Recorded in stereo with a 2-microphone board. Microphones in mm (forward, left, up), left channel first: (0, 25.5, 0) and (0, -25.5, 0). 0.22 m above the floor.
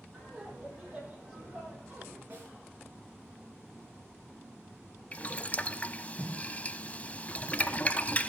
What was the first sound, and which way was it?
Laughter, 20° right (ahead or behind).